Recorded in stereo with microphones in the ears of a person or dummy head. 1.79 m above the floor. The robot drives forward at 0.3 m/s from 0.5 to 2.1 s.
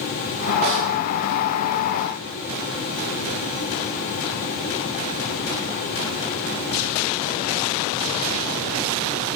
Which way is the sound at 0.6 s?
45° right (ahead or behind).